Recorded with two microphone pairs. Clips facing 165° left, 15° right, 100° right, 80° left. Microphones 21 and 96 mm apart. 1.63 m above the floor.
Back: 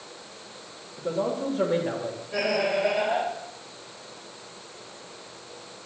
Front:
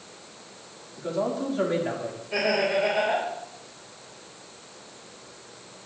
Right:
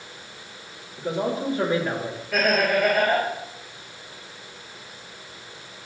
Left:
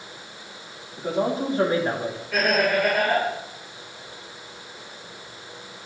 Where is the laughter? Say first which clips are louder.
Front 1 dB, even; 15° right, 2.5 m.